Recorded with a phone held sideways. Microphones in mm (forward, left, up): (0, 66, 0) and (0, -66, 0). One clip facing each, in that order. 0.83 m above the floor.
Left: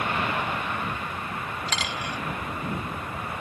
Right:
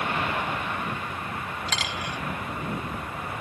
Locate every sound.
1.7 s a dropped coin: centre (ahead or behind)